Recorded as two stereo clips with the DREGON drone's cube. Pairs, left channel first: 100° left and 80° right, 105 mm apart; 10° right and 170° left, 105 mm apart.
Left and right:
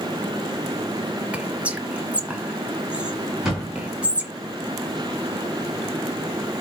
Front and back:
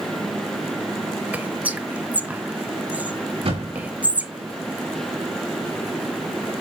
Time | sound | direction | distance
1.3 | whispering | 135° right | 1.0 m
3.4 | a thud | 165° right | 5 m